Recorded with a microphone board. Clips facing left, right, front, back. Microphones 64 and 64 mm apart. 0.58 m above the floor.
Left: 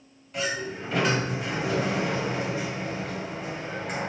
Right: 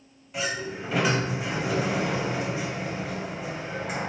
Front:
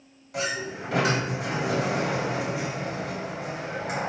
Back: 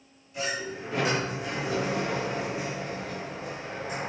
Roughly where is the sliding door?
Ahead.